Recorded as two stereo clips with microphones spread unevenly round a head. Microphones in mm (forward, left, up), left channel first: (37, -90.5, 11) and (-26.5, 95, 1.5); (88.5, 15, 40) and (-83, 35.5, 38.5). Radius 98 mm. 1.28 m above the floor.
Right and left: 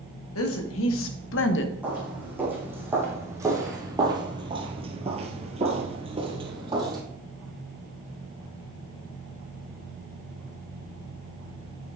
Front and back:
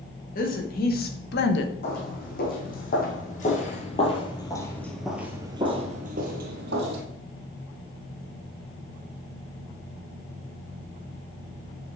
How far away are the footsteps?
About 4 m.